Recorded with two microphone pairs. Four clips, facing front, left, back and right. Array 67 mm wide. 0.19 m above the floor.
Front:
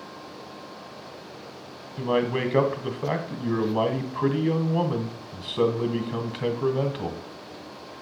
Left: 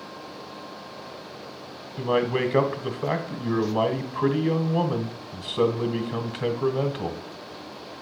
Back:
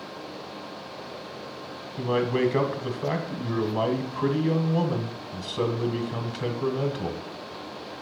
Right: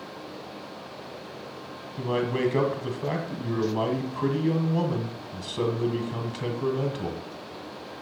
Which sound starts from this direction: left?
A man speaking, at 2.0 s.